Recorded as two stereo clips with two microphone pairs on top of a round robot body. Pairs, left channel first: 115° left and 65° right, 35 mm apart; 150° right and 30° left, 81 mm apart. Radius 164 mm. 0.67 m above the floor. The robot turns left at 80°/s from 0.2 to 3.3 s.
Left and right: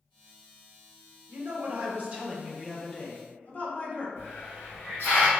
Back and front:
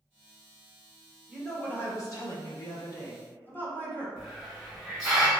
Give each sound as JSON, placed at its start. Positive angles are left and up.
{"t": 1.3, "sound": "a woman speaking", "azimuth_deg": -50, "distance_m": 1.1}
{"t": 4.2, "sound": "a hiss", "azimuth_deg": 125, "distance_m": 1.3}